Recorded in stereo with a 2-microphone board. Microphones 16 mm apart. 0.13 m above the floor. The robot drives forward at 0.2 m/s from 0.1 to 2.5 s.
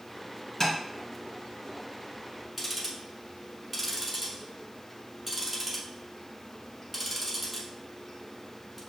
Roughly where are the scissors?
I don't hear scissors.